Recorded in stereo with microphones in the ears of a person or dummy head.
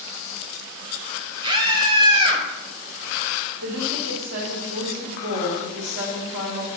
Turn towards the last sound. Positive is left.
turn(degrees=-85)